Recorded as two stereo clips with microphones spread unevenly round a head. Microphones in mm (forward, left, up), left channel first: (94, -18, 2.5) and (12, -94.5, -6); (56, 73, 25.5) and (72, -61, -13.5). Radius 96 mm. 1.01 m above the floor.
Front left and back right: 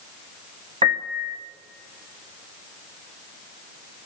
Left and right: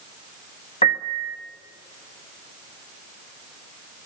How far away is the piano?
About 0.9 m.